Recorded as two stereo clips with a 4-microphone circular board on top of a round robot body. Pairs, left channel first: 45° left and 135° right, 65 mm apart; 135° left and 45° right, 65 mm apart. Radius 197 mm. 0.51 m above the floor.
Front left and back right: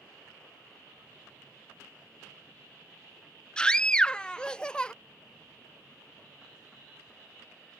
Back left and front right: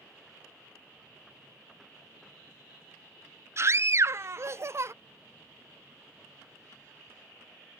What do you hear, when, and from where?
3.6 s a scream: 25° right